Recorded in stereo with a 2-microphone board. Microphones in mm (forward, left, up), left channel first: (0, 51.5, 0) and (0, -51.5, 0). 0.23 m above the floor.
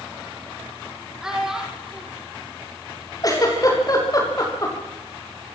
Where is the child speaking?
5° right (ahead or behind), 5.5 m.